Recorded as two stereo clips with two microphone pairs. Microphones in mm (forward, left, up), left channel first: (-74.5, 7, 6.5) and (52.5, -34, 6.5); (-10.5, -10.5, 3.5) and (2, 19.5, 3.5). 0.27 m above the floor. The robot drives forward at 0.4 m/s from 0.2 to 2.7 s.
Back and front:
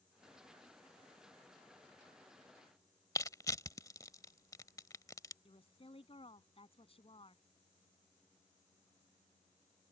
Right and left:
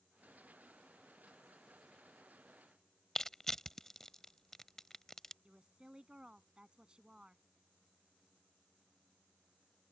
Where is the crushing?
170° right.